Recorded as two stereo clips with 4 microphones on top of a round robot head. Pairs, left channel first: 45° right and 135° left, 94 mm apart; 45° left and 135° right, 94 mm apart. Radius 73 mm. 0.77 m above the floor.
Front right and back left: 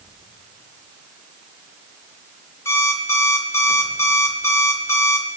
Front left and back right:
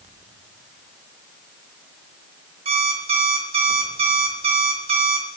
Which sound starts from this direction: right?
An alarm clock, at 2.6 s.